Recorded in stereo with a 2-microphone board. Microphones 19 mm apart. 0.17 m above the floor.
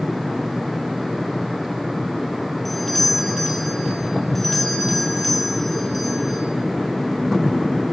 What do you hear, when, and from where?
2.6 s a doorbell: 10° left (ahead or behind), 6.5 m